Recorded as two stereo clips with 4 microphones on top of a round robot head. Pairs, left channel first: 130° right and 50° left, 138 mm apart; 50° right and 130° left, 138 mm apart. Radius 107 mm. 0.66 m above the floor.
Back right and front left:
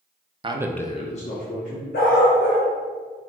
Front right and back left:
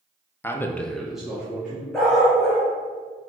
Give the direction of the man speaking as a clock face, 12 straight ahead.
11 o'clock.